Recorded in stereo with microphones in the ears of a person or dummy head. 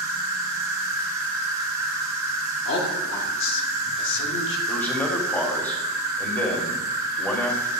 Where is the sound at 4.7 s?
15° left (ahead or behind), 1.1 m.